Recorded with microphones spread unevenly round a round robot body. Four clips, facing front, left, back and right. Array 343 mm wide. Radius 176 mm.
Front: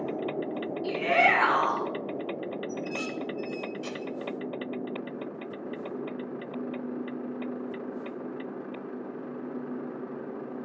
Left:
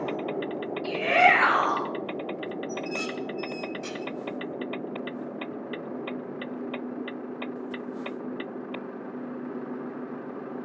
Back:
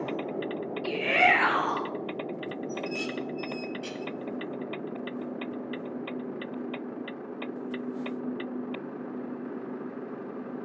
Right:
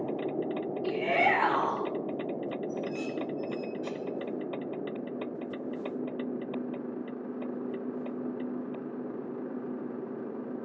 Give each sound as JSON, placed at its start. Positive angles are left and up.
{"t": 0.8, "sound": "a shout", "azimuth_deg": 50, "distance_m": 3.0}
{"t": 2.7, "sound": "dishes clattering", "azimuth_deg": 60, "distance_m": 1.3}